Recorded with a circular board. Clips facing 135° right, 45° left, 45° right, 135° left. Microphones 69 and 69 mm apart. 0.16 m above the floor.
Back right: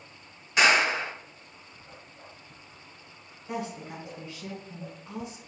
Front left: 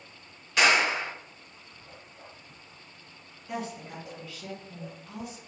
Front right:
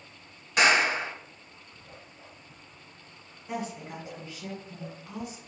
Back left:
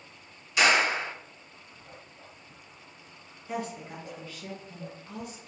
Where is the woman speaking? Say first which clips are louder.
Back right 1 dB, even; 95° right, 1.4 m.